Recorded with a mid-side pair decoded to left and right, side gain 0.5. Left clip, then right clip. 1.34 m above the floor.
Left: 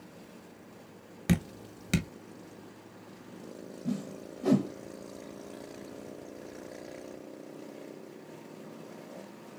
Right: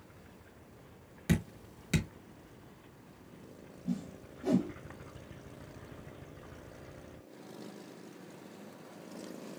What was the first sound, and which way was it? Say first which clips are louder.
Dripping: left 2 dB; 40° left.